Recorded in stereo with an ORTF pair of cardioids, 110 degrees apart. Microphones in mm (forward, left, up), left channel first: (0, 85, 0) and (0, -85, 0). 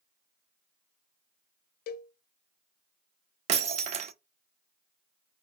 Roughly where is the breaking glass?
Ahead right.